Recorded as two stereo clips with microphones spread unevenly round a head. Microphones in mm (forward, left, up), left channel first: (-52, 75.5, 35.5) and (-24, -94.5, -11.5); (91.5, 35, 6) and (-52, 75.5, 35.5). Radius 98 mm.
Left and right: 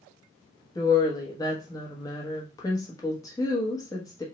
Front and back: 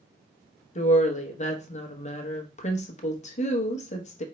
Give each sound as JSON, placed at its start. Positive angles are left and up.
{"t": 0.8, "sound": "a woman speaking", "azimuth_deg": 30, "distance_m": 1.3}